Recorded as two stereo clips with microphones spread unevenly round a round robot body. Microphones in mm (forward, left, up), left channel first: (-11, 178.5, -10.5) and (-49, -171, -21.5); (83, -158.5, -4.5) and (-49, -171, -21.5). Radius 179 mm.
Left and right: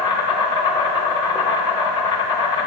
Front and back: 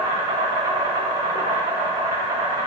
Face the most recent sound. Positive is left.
turn(degrees=155)